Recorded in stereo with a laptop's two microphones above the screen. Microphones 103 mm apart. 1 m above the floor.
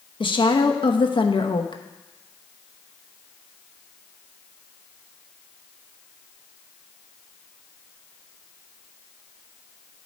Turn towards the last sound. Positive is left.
turn(degrees=55)  # may be behind; listen again after turning